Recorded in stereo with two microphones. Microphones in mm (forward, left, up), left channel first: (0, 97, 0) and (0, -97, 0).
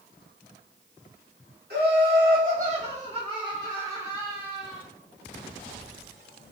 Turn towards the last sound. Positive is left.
turn(degrees=-5)  # may be behind; listen again after turning